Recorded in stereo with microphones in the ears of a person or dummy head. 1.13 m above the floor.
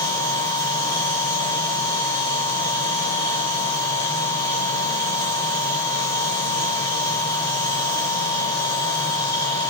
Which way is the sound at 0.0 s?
15° left (ahead or behind).